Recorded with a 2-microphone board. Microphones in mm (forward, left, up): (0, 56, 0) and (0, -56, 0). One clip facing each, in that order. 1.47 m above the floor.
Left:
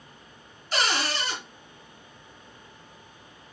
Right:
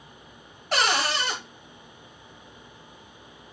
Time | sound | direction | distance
0.7 | a cupboard door | 60° right (ahead or behind) | 1.4 m